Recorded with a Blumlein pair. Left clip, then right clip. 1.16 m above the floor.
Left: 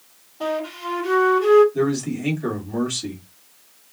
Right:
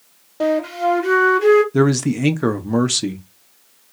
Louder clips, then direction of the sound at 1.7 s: Right 5 dB; 50° right.